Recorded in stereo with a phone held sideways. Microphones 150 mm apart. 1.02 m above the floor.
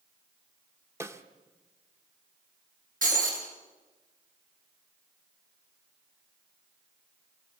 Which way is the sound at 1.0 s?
20° right (ahead or behind).